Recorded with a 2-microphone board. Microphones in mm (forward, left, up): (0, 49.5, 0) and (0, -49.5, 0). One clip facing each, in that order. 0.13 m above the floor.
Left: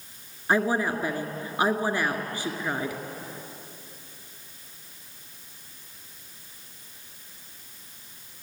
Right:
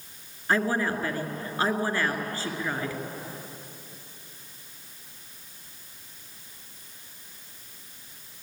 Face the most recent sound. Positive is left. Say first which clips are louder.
# left 1 dB
turn(degrees=15)  # may be behind; listen again after turning